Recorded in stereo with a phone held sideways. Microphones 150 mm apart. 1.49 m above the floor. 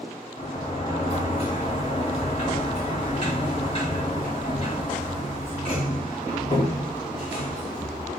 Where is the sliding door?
40° left (ahead or behind), 1.2 m.